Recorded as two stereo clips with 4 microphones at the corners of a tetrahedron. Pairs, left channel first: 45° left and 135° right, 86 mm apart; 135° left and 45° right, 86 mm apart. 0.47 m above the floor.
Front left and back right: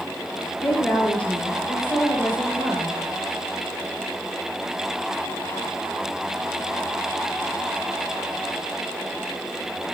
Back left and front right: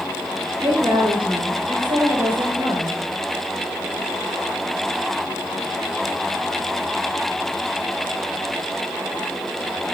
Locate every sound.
0.6 s a woman speaking: 30° right, 8 m